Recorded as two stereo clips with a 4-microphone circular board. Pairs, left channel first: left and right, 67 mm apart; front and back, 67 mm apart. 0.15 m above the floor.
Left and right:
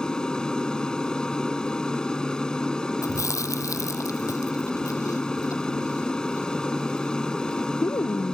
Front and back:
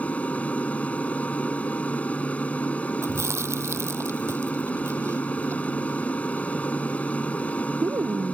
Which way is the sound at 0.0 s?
30° left.